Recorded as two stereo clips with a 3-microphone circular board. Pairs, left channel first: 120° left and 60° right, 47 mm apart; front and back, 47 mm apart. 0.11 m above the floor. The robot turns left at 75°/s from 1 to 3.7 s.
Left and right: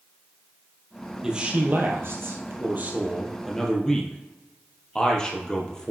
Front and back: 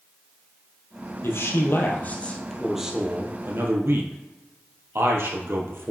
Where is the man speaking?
15° left, 2.5 m; by 5.9 s 170° right, 2.5 m.